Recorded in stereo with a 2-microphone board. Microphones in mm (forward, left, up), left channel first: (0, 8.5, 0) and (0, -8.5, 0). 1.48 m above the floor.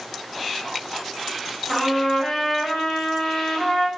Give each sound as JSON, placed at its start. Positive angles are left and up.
{"t": 1.7, "sound": "a trumpet", "side_deg": 25, "distance_m": 1.3}